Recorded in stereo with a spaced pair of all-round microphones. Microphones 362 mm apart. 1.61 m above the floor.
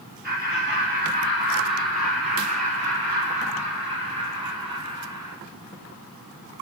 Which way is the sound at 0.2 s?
25° right (ahead or behind).